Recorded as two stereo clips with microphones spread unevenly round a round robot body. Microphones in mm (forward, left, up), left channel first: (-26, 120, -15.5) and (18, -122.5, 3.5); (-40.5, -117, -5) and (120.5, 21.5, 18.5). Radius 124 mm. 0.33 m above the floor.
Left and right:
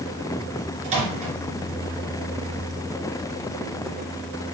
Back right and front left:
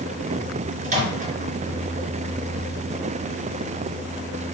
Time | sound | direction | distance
0.8 | a microwave | 15° right | 3.5 m